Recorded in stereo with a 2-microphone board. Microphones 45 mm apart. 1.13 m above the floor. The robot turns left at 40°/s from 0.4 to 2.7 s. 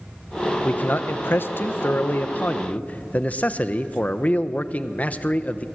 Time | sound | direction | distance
0.6 | a man speaking | 130° left | 1.0 m